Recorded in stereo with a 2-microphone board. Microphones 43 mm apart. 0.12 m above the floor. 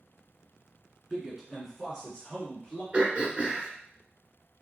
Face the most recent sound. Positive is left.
turn(degrees=-35)  # may be behind; listen again after turning